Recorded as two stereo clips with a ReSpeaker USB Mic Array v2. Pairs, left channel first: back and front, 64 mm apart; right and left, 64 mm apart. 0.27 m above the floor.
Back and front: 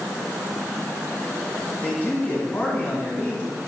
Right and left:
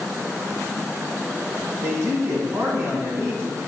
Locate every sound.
1.8 s a man speaking: 120° left, 1.9 m